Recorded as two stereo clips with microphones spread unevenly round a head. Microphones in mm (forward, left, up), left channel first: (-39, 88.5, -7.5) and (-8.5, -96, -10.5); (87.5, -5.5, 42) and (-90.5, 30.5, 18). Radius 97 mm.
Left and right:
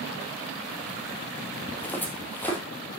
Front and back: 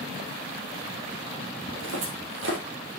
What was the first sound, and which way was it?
Footsteps, straight behind.